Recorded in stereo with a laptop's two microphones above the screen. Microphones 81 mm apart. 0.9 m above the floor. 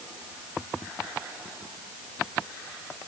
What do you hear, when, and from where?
Only background noise.